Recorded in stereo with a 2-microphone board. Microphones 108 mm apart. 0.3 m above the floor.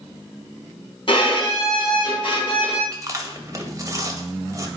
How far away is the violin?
About 2 m.